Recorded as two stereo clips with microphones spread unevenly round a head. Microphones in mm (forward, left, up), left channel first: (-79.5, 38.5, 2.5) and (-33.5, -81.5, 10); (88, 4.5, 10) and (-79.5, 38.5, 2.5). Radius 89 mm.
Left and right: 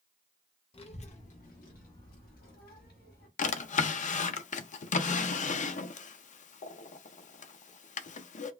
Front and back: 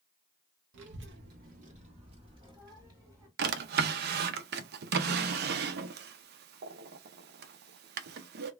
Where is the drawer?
140° left, 0.5 m.